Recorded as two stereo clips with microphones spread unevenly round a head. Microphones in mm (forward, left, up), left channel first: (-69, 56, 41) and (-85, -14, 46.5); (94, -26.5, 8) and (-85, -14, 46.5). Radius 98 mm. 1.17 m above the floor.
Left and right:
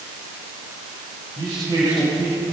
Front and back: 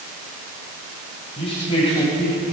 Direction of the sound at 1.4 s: 65° right.